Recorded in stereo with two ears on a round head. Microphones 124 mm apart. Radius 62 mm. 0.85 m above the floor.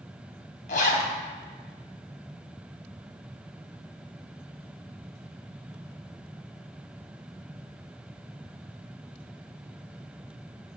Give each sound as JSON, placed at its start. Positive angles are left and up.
{"t": 0.7, "sound": "a zipper", "side_deg": 60, "distance_m": 3.0}